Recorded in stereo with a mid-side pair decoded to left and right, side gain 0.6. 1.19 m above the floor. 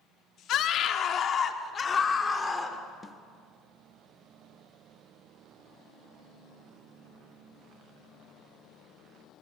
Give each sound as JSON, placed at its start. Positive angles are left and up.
{"t": 0.5, "sound": "a scream", "azimuth_deg": 60, "distance_m": 2.0}
{"t": 3.0, "sound": "a snare drum", "azimuth_deg": 20, "distance_m": 1.4}